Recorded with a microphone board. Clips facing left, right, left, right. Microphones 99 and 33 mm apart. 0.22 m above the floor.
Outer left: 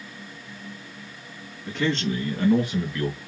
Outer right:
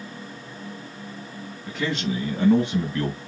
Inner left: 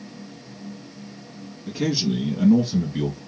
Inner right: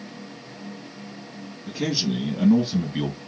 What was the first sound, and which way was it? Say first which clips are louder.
A man speaking: outer left 2 dB, inner left 2 dB; centre (ahead or behind).